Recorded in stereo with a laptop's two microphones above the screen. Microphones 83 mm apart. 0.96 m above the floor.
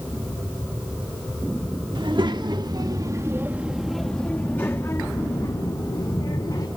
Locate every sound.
1.9 s a child speaking: 70° right (ahead or behind), 1.3 m; by 6.7 s 60° left (ahead or behind), 2.0 m